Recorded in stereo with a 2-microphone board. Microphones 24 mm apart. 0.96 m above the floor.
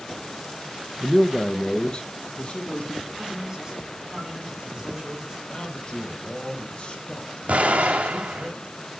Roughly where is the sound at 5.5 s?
Left.